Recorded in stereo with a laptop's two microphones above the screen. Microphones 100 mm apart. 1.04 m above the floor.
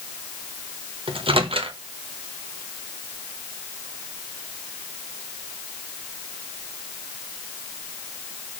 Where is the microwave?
65° right (ahead or behind), 0.9 m.